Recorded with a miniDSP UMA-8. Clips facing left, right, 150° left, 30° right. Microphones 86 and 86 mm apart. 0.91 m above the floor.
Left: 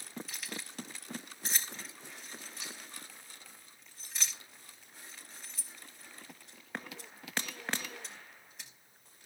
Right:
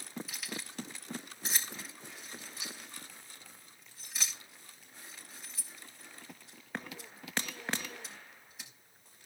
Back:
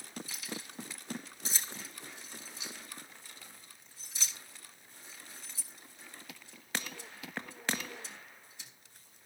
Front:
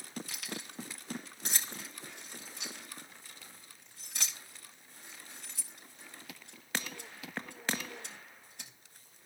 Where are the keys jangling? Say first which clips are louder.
Right 1 dB, even; 5° right, 4.5 m.